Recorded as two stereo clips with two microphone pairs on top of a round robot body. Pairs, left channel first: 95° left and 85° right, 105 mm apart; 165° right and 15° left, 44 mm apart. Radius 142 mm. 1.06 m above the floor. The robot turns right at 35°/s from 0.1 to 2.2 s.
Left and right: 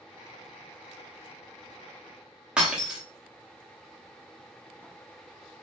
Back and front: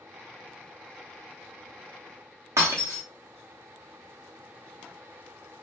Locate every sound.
2.6 s breaking glass: 5° left, 0.7 m